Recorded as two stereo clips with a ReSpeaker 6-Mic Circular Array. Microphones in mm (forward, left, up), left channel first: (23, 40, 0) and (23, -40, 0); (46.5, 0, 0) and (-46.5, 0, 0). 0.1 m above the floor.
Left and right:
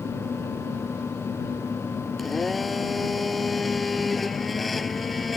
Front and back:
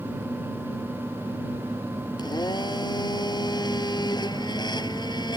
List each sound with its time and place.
2.2 s a blender: straight ahead